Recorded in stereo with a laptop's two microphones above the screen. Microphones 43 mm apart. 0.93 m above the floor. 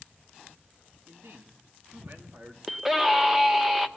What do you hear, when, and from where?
1.1 s a man speaking: 70° right (ahead or behind), 1.7 m; by 2.6 s 40° right (ahead or behind), 2 m
2.7 s a scream: 10° right (ahead or behind), 0.6 m